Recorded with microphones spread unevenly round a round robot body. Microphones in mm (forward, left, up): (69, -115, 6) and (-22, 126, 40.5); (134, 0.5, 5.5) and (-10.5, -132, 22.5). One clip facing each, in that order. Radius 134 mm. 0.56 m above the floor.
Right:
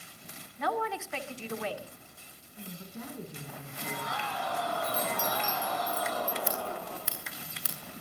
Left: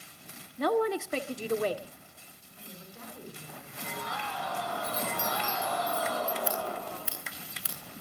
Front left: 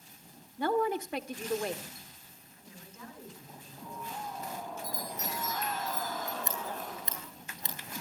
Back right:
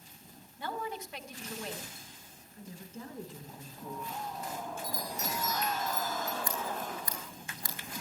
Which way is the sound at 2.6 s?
80° right.